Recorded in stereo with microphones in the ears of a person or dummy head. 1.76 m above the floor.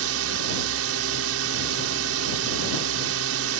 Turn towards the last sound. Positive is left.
turn(degrees=-85)